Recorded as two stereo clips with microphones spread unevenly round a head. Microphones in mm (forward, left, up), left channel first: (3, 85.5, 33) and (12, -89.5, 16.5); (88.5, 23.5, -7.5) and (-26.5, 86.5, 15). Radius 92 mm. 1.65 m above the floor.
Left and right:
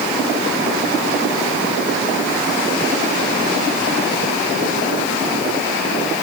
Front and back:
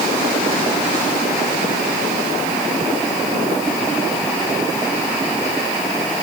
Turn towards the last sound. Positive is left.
No sound to turn to.